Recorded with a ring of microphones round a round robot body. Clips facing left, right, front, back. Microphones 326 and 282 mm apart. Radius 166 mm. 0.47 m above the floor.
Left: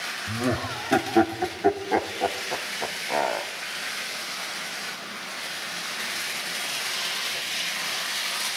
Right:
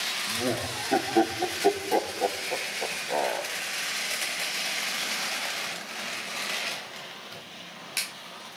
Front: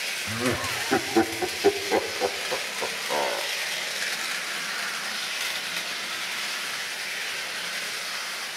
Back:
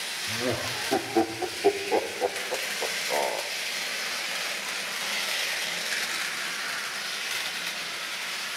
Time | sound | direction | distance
0.3 | laughter | 50° left | 0.9 m